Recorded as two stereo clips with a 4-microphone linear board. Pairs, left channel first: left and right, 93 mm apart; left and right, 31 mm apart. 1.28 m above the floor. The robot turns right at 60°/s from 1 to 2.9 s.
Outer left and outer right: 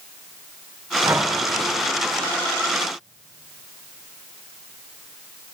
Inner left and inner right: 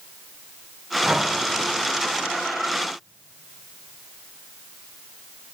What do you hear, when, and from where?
1.0 s breathing: 30° right (ahead or behind), 0.8 m; by 1.3 s 15° right (ahead or behind), 0.8 m